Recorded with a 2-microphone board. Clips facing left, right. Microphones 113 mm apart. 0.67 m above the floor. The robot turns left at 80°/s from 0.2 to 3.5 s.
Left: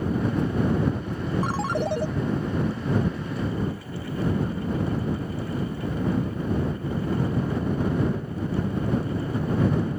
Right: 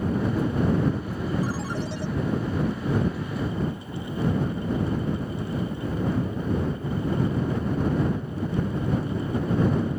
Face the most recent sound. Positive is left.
turn(degrees=-70)